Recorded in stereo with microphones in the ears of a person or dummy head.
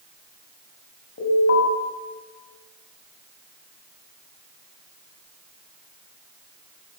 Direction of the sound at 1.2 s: 55° left (ahead or behind).